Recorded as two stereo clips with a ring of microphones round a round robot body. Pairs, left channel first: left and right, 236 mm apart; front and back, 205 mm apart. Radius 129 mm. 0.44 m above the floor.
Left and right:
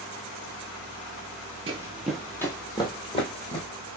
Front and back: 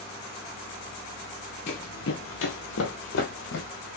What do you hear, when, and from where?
1.7 s running footsteps: 30° right, 0.5 m; by 3.7 s 25° left, 1.6 m